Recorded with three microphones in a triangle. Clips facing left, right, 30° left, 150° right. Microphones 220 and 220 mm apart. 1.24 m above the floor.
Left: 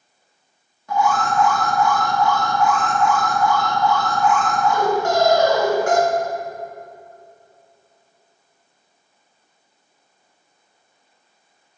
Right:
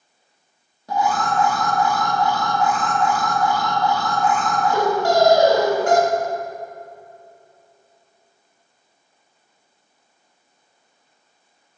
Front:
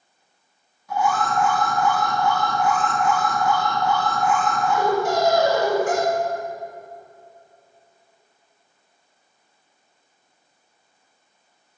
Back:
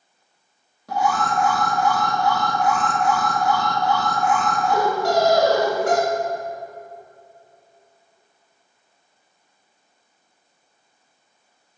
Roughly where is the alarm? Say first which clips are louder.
Left 1 dB, even; behind right.